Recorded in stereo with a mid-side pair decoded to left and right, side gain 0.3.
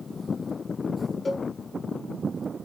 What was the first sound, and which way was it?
A cowbell, 40° left.